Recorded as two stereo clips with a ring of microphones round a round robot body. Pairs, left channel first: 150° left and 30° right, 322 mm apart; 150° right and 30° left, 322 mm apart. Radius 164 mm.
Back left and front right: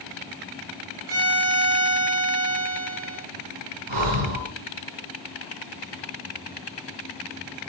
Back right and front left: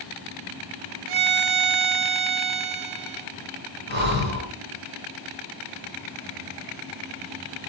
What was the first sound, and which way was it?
A violin, 20° left.